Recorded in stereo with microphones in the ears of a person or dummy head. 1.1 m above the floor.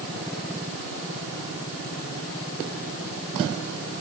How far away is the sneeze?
No sneeze in this recording.